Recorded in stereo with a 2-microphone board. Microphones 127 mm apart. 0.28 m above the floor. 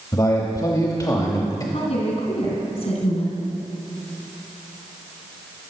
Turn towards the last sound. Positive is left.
turn(degrees=60)  # may be behind; listen again after turning